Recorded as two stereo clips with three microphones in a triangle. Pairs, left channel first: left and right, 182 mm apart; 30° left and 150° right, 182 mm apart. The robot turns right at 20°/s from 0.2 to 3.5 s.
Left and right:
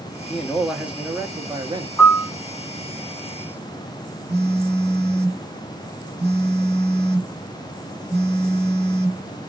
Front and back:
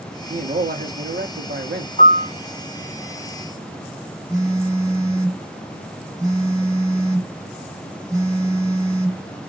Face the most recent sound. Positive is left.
turn(degrees=-80)